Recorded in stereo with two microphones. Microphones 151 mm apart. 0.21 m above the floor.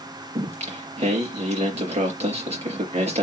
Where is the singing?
45° right (ahead or behind), 4 m.